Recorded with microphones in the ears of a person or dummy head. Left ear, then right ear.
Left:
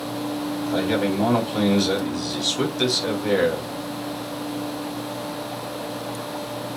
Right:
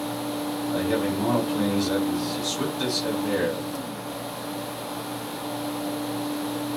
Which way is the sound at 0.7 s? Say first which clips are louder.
Left 3 dB; 75° left (ahead or behind).